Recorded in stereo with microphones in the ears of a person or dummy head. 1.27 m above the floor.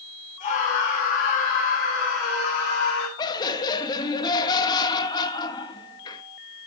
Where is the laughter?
25° left (ahead or behind), 1.7 m.